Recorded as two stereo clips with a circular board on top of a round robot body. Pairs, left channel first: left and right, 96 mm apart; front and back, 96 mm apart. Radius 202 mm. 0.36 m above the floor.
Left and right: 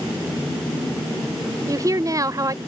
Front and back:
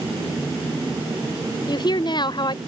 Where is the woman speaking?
40° right.